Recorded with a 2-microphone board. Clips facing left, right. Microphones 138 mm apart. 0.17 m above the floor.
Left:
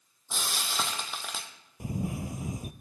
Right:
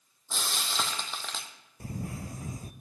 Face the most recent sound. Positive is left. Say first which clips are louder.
# left 5 dB
turn(degrees=20)  # may be behind; listen again after turning